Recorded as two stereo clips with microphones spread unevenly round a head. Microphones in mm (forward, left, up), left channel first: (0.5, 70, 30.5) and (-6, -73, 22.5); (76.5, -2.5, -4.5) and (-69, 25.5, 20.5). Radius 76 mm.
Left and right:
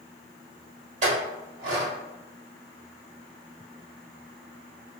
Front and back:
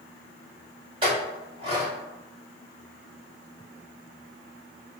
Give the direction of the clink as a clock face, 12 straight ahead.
4 o'clock.